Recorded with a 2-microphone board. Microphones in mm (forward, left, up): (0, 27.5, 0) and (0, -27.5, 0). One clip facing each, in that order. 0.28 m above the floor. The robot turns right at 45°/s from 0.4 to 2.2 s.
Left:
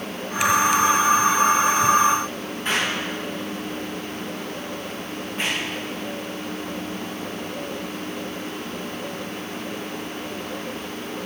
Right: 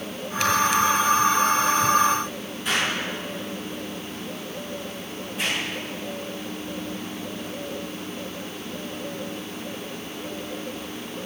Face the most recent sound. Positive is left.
turn(degrees=35)  # may be behind; listen again after turning